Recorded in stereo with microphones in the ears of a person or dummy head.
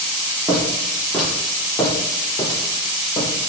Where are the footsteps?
10° right (ahead or behind), 1.4 m; by 3.5 s 35° left (ahead or behind), 2 m.